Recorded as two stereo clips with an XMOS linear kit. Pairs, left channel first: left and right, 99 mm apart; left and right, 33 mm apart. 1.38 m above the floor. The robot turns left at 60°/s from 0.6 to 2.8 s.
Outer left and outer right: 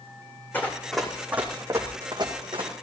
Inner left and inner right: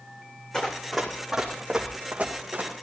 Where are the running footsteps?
15° left (ahead or behind), 3.5 m; by 2.7 s 60° right (ahead or behind), 3.5 m.